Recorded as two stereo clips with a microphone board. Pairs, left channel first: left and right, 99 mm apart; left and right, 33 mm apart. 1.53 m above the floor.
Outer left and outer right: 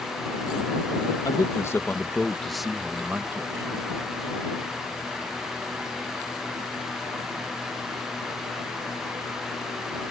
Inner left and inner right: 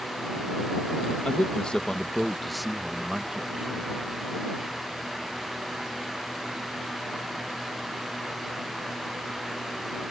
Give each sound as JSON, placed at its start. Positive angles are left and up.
{"t": 1.2, "sound": "a man speaking", "side_deg": 40}